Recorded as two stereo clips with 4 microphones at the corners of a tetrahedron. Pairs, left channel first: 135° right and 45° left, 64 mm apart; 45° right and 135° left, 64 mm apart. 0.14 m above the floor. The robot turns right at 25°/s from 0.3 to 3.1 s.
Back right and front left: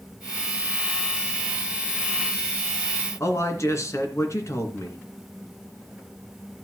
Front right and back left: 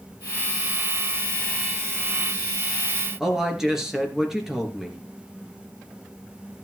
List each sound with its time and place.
3.2 s a man speaking: 145° right, 2.5 m